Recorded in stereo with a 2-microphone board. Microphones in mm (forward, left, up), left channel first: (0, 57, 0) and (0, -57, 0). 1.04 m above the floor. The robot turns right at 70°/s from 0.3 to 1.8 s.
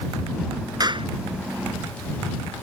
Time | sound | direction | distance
0.8 | a clap | 35° right (ahead or behind) | ?